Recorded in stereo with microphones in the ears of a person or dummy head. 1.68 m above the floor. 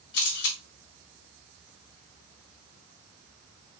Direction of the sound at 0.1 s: 50° left (ahead or behind).